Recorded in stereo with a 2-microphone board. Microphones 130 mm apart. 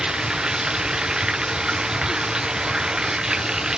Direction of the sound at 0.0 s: 5° right (ahead or behind).